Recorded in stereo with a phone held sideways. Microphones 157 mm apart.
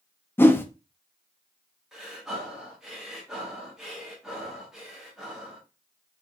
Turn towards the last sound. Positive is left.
turn(degrees=-5)  # may be behind; listen again after turning